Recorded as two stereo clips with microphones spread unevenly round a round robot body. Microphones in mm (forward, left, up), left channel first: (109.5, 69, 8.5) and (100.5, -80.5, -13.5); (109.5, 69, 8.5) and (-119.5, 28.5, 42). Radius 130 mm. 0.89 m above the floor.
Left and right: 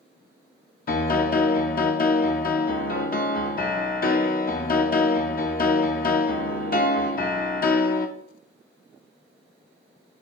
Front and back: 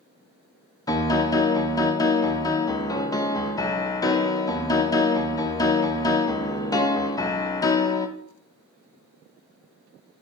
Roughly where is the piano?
Left.